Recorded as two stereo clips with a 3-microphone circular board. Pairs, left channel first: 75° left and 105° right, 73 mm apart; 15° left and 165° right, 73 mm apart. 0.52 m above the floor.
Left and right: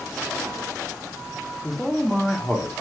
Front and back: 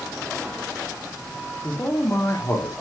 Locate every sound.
1.6 s a man speaking: 5° right, 0.6 m; by 2.7 s 15° right, 1.0 m